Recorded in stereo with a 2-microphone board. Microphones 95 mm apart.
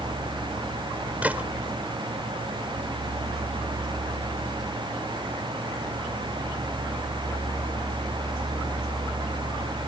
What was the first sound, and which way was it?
A gunshot, 15° right (ahead or behind).